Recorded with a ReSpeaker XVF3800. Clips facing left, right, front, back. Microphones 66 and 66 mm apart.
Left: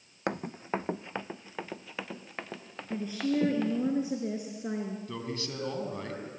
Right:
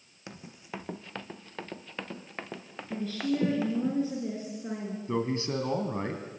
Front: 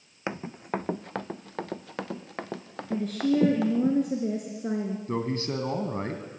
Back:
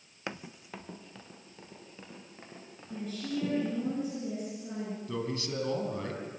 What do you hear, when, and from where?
0.3 s running footsteps: 65° left, 0.6 m; by 3.9 s 5° right, 3 m
2.9 s a woman speaking: 20° left, 3 m
5.1 s a man speaking: 35° right, 2.5 m